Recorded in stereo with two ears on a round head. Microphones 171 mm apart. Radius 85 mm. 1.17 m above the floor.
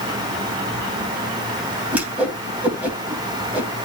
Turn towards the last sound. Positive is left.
turn(degrees=-10)  # may be behind; listen again after turning